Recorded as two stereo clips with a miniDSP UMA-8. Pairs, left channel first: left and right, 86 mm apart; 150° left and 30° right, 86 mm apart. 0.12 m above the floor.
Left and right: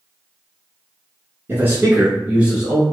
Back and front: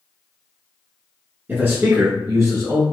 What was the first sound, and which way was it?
A man speaking, 65° right.